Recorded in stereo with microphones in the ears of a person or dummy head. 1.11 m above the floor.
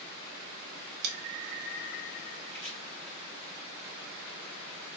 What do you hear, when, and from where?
1.0 s scissors: 65° right (ahead or behind), 1.0 m
2.5 s chopping: 5° left (ahead or behind), 2 m